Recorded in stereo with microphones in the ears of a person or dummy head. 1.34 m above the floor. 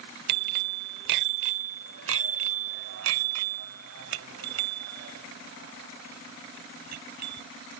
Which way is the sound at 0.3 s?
55° right (ahead or behind).